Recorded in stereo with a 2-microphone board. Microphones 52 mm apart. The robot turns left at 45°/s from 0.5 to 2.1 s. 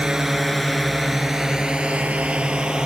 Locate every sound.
0.0 s a drone: 15° right (ahead or behind)